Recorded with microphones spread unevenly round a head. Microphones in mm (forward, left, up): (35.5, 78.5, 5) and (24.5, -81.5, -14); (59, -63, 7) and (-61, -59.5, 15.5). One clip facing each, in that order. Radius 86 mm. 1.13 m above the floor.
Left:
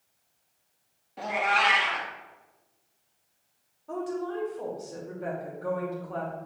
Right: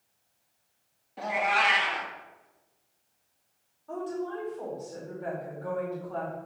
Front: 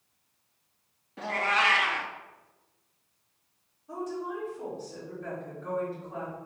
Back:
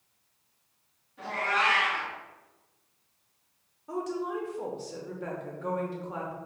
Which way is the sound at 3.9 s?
160° left.